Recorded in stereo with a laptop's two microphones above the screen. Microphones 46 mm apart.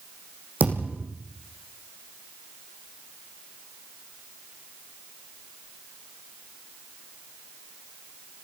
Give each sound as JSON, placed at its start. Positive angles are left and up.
{"t": 0.6, "sound": "a thud", "side_deg": -40, "distance_m": 7.5}